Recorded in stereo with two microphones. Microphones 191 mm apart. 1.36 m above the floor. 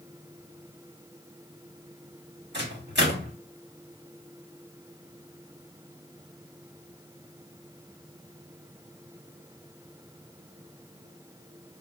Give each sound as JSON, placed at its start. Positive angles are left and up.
{"t": 2.5, "sound": "a microwave", "side_deg": -65, "distance_m": 1.5}